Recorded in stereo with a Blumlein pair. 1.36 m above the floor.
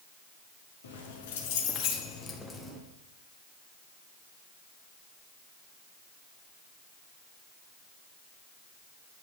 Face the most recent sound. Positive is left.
turn(degrees=-5)